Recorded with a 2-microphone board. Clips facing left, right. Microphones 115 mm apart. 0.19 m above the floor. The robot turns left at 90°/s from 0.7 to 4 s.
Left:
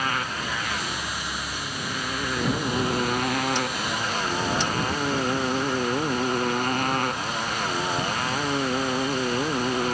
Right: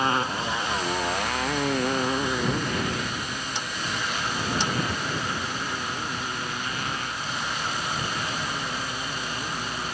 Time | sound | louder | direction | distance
0.0 | a motorcycle | right 3 dB | 25° right (ahead or behind) | ?